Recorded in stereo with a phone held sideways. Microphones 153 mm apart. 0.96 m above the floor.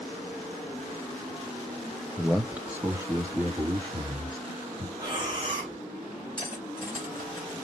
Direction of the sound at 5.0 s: 30° right (ahead or behind).